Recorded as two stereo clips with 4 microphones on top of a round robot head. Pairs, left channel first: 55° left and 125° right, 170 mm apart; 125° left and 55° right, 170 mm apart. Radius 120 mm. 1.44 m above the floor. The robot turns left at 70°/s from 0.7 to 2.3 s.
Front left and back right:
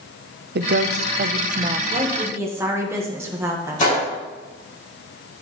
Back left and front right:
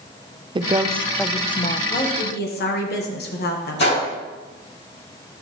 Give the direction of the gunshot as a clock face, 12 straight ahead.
9 o'clock.